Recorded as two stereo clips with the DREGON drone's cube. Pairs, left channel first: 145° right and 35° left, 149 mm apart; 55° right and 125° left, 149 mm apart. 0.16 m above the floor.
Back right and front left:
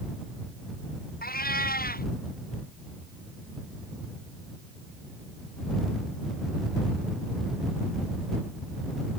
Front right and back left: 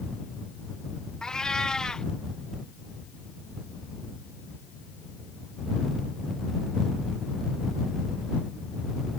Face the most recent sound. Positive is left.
turn(degrees=-140)